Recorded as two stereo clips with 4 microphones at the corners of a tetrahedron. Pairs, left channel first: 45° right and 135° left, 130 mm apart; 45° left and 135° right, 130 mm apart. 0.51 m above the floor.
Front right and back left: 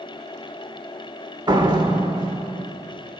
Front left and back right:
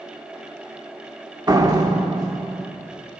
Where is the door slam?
175° left, 1.0 m.